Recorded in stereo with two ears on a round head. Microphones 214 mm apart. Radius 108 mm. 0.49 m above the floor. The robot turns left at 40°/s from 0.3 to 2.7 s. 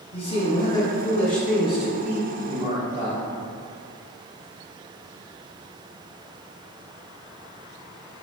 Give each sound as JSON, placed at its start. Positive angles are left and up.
{"t": 0.1, "sound": "a man speaking", "azimuth_deg": 50, "distance_m": 0.8}